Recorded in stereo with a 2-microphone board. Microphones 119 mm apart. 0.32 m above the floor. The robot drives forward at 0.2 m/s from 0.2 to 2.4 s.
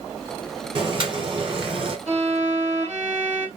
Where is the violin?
75° right (ahead or behind), 2.5 m.